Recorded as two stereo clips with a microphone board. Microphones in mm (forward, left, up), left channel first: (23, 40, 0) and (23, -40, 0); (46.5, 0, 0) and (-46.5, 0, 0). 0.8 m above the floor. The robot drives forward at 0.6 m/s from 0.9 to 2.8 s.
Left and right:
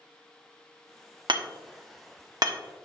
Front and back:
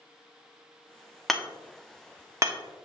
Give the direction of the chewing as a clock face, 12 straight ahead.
I don't hear chewing.